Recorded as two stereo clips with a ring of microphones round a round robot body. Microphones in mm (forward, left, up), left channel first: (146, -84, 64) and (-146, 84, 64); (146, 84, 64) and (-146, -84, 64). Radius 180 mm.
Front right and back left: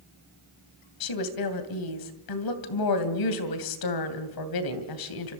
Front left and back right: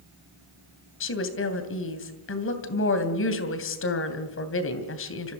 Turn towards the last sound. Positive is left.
turn(degrees=-20)